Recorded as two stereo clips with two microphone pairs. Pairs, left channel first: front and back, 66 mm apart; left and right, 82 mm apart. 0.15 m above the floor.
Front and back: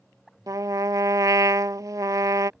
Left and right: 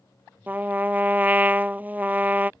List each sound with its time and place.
0.5 s a trumpet: 155° right